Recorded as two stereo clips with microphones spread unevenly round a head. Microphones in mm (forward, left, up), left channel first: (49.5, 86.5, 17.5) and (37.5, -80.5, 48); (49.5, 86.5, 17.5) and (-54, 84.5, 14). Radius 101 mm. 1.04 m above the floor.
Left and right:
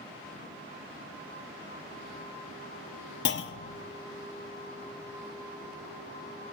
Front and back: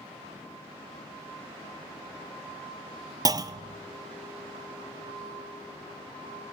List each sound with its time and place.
3.2 s a clunk: 125° left, 0.5 m